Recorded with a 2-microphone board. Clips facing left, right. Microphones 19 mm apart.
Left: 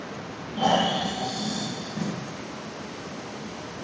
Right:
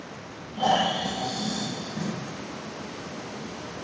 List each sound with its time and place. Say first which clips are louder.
0.6 s snoring: left 1 dB; 30° left (ahead or behind), 1.1 m
2.0 s tape being pulled: left 2 dB; 35° right (ahead or behind), 1.7 m